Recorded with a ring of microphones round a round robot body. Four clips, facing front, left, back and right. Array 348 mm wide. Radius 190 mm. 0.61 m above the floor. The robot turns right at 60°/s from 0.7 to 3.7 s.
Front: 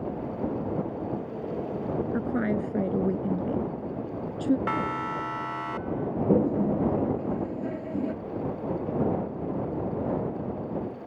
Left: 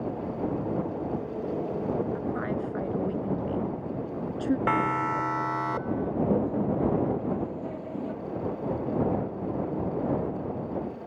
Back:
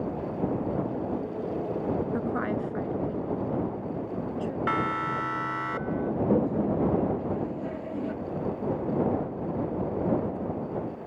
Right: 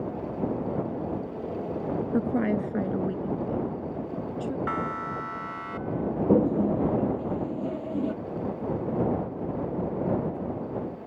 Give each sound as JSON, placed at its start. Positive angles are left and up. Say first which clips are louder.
{"t": 2.1, "sound": "a woman speaking", "louder": "right 5 dB, front 1 dB", "azimuth_deg": -70}
{"t": 4.7, "sound": "a siren", "louder": "left 5 dB, back 1 dB", "azimuth_deg": 100}
{"t": 6.3, "sound": "a toilet flushing", "louder": "right 7 dB, front 3 dB", "azimuth_deg": -55}